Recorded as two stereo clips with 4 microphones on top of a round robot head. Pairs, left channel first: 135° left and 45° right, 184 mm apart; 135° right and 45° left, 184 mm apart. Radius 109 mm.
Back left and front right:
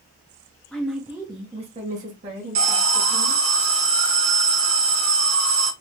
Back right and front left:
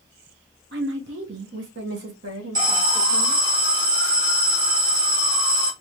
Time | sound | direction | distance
0.7 | a woman speaking | 55° left | 0.6 m
2.5 | an alarm | 25° right | 1.2 m